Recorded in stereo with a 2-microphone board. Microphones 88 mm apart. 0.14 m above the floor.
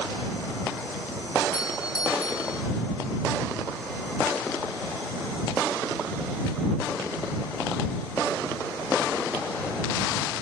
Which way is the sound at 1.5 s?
45° left (ahead or behind).